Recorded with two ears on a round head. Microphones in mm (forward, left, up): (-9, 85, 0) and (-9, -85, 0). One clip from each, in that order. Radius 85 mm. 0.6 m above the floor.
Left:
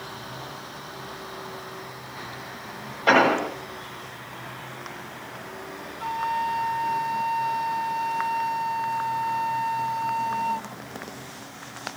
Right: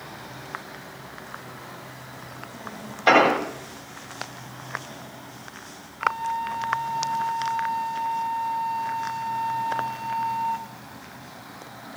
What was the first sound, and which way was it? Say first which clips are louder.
An explosion: right 1 dB; 45° right (ahead or behind).